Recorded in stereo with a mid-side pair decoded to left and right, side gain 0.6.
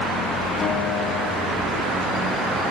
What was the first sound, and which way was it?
A guitar, 35° left.